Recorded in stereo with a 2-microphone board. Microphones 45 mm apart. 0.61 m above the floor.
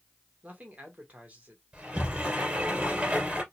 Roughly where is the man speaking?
Right.